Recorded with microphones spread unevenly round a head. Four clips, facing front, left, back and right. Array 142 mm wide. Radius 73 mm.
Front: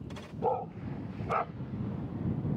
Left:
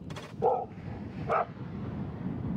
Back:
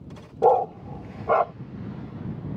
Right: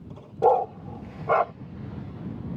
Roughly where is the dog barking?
Behind right.